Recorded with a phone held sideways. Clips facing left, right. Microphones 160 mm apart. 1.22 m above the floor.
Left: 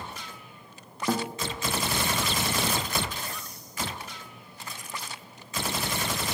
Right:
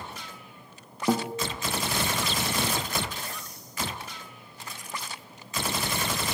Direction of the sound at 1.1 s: 15° right (ahead or behind).